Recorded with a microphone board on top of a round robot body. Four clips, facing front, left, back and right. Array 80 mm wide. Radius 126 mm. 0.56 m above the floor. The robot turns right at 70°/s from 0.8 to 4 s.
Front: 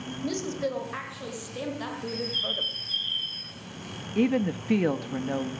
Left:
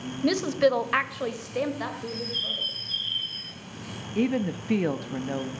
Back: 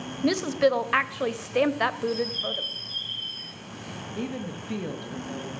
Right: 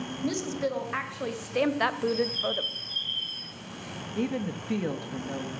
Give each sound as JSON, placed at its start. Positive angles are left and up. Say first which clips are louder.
{"t": 0.2, "sound": "a woman speaking", "louder": "left 8 dB, back 8 dB", "azimuth_deg": 140, "distance_m": 1.0}
{"t": 2.1, "sound": "a bird", "louder": "right 7 dB, back 5 dB", "azimuth_deg": -5, "distance_m": 2.5}
{"t": 4.2, "sound": "a woman speaking", "louder": "left 5 dB, front 10 dB", "azimuth_deg": 30, "distance_m": 0.7}